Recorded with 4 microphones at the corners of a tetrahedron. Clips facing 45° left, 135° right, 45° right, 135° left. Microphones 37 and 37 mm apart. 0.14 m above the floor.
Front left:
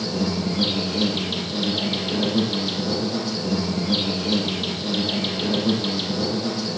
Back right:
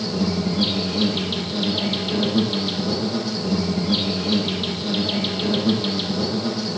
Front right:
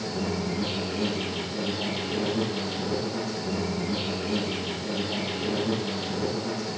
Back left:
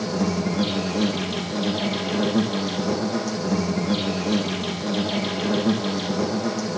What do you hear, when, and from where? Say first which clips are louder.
0.0 s an insect: back right 1 dB, back left 5 dB; 140° left, 7.5 m